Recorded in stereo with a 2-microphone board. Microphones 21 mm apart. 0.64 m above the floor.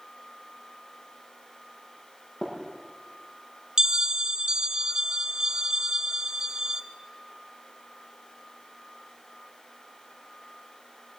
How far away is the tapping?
About 7.5 m.